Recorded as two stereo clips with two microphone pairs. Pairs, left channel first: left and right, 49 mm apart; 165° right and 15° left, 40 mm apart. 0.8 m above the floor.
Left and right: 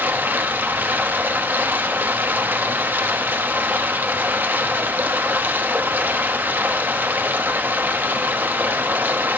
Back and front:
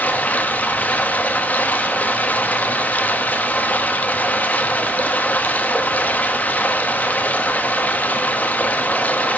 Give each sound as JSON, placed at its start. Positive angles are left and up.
{"t": 0.0, "sound": "running water", "azimuth_deg": -130, "distance_m": 1.1}